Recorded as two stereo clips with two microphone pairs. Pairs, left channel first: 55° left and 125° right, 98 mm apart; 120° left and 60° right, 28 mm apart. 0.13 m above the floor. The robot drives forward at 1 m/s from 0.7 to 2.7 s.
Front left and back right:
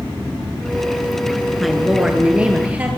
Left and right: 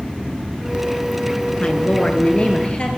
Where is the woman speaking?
145° left, 1.6 m; by 2.9 s 160° left, 2.5 m.